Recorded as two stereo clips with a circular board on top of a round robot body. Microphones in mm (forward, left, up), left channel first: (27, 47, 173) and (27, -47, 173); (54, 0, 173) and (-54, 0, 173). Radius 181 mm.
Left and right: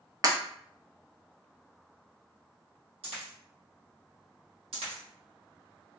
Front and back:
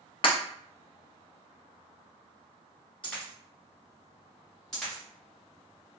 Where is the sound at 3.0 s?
80° right, 1.4 m.